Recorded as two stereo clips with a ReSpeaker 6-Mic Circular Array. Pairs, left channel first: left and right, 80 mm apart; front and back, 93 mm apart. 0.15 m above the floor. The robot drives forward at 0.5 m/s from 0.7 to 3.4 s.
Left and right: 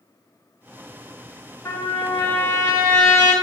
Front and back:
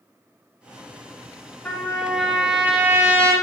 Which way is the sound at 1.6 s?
65° left.